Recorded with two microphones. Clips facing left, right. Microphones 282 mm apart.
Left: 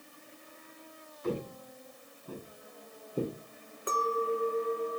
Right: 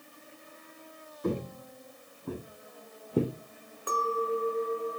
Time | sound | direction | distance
1.2 | footsteps | 55° right (ahead or behind) | 2 m
3.9 | a clink | 20° left (ahead or behind) | 1.7 m